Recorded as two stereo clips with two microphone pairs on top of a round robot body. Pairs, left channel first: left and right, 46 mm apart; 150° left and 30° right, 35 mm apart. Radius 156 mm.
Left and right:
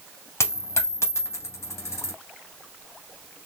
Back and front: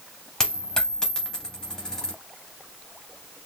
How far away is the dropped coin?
About 0.6 m.